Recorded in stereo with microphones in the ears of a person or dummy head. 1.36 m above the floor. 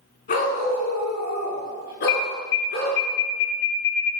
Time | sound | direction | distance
0.3 | a dog barking | 45° left (ahead or behind) | 4 m
2.1 | an alarm | 55° left (ahead or behind) | 2.5 m